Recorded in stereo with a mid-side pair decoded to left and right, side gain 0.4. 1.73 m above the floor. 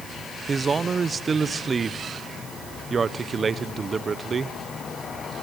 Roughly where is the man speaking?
Ahead right.